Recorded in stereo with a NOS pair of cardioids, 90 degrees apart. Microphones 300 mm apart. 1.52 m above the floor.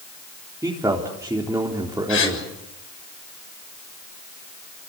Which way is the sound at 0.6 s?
10° right.